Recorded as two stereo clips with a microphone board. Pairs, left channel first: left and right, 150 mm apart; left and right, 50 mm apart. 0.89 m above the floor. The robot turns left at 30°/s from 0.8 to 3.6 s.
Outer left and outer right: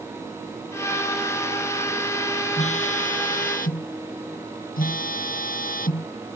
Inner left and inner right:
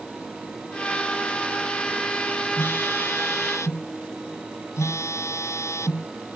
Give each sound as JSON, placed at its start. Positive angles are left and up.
{"t": 2.6, "sound": "a phone buzzing", "azimuth_deg": 125}